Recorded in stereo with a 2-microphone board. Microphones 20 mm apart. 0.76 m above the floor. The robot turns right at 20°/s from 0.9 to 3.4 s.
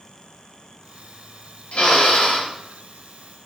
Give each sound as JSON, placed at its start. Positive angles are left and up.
{"t": 1.7, "sound": "a drill", "side_deg": 75, "distance_m": 3.0}